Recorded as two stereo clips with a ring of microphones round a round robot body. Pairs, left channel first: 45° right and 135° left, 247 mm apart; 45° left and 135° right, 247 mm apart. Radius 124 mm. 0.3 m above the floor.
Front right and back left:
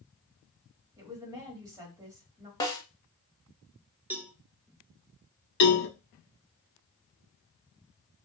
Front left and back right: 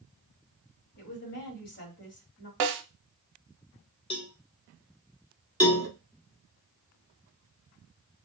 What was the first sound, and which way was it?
A woman speaking, 65° left.